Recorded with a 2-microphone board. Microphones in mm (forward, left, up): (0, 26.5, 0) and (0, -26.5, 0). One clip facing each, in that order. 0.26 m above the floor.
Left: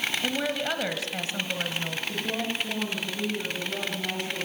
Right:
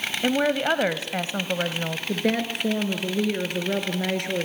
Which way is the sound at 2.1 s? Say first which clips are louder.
Right 8 dB; 75° right (ahead or behind).